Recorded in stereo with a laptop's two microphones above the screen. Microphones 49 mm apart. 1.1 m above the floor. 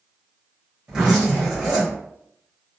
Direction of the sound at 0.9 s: 15° right (ahead or behind).